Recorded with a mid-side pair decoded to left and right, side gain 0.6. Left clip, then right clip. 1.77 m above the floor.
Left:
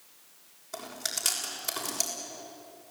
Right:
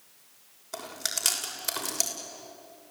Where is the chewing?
25° right, 6.5 m.